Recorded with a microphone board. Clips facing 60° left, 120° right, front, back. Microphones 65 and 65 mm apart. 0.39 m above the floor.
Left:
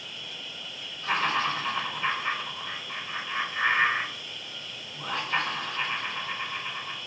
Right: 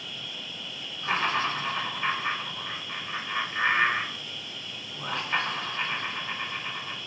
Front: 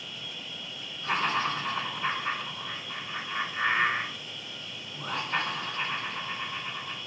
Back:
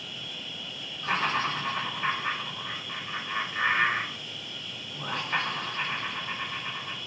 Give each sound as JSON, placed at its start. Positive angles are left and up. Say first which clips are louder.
{"t": 0.0, "sound": "an insect", "louder": "right 1 dB, back 1 dB", "azimuth_deg": 35, "distance_m": 1.8}
{"t": 1.0, "sound": "laughter", "louder": "even, even", "azimuth_deg": -170, "distance_m": 2.0}